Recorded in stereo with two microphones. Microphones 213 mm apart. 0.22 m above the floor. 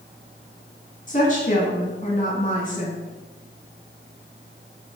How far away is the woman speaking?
About 1.5 m.